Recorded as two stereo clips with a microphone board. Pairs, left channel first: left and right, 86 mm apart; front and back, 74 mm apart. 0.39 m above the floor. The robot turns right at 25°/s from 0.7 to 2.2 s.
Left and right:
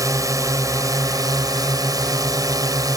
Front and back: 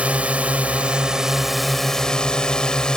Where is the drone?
115° right; by 3.0 s 75° right.